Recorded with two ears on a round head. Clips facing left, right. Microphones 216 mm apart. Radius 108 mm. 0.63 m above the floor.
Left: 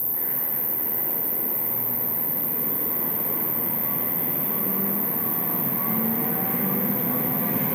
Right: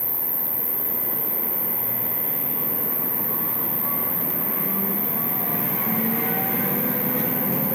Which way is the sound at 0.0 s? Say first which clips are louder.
Right 1 dB; 15° left (ahead or behind).